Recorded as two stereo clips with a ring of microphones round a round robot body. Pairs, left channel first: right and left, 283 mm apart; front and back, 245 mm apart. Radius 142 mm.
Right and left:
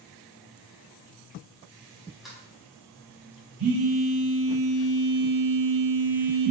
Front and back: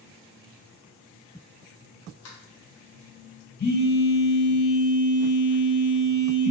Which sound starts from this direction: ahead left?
A phone buzzing, at 3.6 s.